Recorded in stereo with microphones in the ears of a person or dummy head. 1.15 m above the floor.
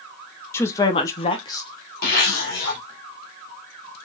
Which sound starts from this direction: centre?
A woman speaking, at 0.5 s.